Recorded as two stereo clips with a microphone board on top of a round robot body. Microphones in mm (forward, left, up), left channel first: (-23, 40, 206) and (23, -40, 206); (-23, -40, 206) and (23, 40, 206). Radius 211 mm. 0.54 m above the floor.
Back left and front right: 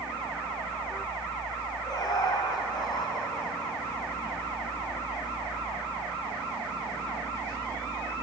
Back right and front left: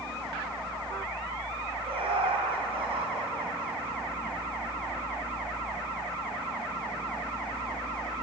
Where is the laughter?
75° left, 4.5 m.